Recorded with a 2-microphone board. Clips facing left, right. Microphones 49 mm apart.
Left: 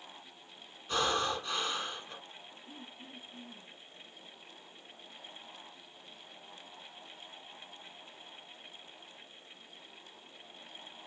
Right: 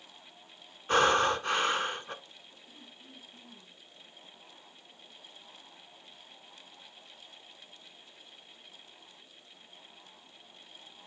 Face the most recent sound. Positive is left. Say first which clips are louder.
# left 4 dB
turn(degrees=45)  # may be behind; listen again after turning